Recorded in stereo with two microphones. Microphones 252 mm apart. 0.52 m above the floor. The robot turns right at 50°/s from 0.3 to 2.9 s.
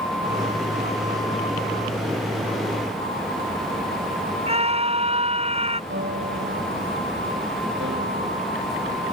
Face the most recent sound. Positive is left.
turn(degrees=-50)  # may be behind; listen again after turning